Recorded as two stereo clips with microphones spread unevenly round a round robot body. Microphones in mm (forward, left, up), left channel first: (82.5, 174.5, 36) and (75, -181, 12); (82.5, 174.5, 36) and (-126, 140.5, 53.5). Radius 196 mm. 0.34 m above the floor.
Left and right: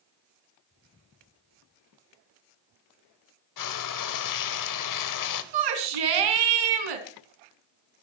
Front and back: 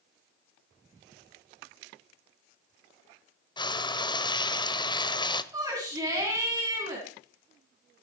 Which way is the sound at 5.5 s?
90° right.